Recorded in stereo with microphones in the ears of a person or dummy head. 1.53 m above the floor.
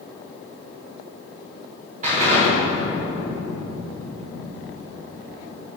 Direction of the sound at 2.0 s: 45° right (ahead or behind).